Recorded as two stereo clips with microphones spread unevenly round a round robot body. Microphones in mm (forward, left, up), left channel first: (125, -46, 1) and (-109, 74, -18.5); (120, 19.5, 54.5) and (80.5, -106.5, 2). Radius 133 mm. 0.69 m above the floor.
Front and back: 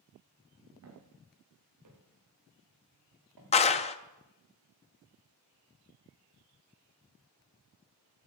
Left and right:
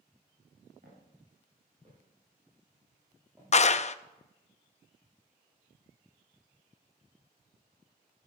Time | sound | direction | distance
0.8 | footsteps | 170° right | 4 m
3.5 | a clap | 30° left | 0.5 m